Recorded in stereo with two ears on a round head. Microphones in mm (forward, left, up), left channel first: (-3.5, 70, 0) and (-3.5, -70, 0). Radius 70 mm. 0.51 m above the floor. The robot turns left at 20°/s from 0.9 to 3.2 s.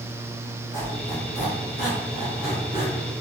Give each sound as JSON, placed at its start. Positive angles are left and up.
{"t": 0.7, "sound": "a squeak", "side_deg": 70, "distance_m": 1.7}